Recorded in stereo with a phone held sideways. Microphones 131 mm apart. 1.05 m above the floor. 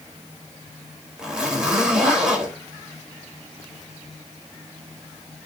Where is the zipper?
5° right (ahead or behind), 3 m.